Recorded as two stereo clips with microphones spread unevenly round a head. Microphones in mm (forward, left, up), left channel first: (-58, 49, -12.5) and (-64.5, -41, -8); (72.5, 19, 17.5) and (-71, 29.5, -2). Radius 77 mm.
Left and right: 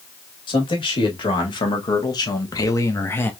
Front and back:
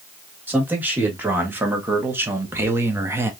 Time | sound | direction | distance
0.5 | a man speaking | 100° left | 1.9 m